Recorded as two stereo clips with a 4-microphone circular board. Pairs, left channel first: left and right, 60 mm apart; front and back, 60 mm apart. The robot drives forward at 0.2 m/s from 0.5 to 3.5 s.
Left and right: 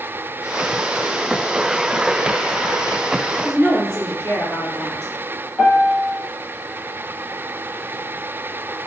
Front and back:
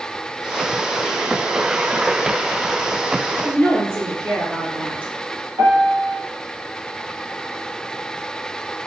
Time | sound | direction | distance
3.4 | a woman speaking | 160° left | 1.5 m
5.6 | a piano | 160° right | 1.1 m